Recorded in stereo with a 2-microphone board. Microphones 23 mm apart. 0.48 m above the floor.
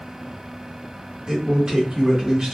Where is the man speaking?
35° right (ahead or behind), 1.0 m.